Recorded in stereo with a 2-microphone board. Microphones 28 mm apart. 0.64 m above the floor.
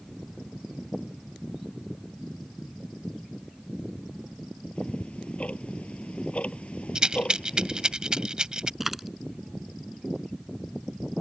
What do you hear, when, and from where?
4.8 s ticking: 45° left (ahead or behind)
7.0 s a rattle: 30° right (ahead or behind)
8.8 s a dropped coin: 5° right (ahead or behind)